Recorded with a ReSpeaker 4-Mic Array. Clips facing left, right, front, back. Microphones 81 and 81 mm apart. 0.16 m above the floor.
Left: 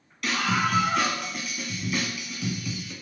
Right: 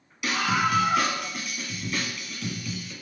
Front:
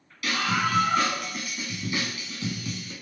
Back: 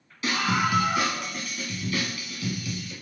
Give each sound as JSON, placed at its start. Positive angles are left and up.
{"t": 0.2, "sound": "a scream", "azimuth_deg": -165, "distance_m": 1.1}